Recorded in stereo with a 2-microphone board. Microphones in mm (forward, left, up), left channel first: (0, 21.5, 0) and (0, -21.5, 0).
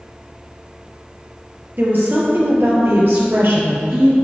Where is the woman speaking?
50° right (ahead or behind), 2.5 m; by 4.1 s 60° right (ahead or behind), 3.5 m.